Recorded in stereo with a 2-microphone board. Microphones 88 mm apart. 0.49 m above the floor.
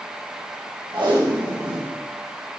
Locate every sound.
0.9 s tape being pulled: 70° right (ahead or behind), 2.5 m